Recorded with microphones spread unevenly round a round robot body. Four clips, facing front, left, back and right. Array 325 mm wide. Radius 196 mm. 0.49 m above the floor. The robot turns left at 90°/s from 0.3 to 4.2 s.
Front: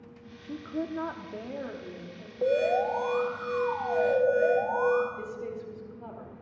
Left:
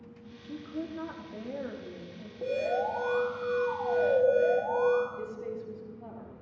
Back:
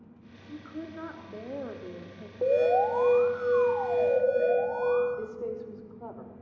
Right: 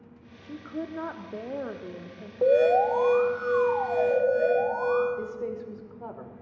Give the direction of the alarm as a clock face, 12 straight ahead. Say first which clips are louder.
Right 10 dB, back 2 dB; 3 o'clock.